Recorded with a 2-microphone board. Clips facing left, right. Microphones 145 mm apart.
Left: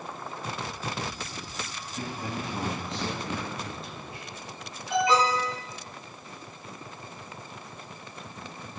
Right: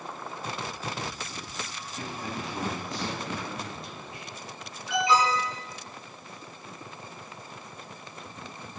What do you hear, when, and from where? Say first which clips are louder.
2.0 s a man speaking: left 2 dB; 20° left (ahead or behind), 3.5 m; by 4.3 s 30° left (ahead or behind), 7.5 m
4.9 s an alarm: left 1 dB; 45° left (ahead or behind), 5 m